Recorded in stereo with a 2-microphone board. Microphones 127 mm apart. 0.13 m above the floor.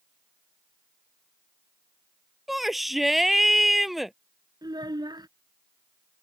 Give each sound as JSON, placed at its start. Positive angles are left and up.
{"t": 2.5, "sound": "a shout", "side_deg": 0}
{"t": 4.6, "sound": "a child speaking", "side_deg": -35}